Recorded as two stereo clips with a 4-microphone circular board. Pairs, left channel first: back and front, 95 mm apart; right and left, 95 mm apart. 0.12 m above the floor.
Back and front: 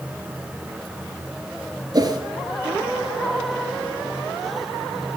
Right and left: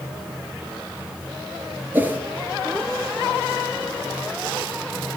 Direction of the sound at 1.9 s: 25° left.